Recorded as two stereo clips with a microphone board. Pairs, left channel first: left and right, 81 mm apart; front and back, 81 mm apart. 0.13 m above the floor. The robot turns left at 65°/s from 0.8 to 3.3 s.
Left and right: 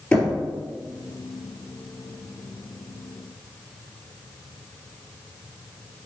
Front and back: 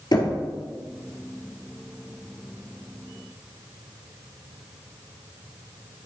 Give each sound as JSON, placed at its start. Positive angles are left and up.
{"t": 0.1, "sound": "knocking", "azimuth_deg": 15, "distance_m": 2.0}